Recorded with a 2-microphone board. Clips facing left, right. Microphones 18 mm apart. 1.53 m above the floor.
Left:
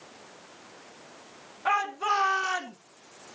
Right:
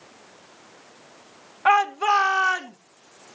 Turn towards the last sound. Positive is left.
turn(degrees=-25)  # may be behind; listen again after turning